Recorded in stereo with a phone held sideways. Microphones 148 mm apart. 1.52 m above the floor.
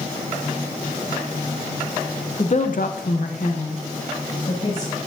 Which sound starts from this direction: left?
A woman speaking, at 2.4 s.